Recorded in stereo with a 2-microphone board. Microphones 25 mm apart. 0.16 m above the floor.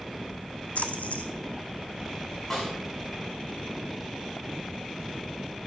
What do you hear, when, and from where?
0.8 s a splash: 75° left (ahead or behind), 1.4 m
2.5 s a snare drum: 10° left (ahead or behind), 6.5 m